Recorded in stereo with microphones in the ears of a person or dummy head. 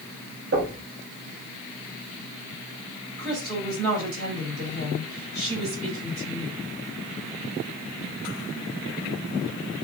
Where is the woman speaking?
50° right (ahead or behind), 3 m.